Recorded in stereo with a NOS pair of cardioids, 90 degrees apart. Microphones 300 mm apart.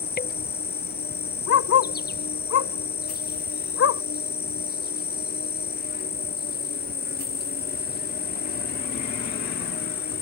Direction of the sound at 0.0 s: 30° left.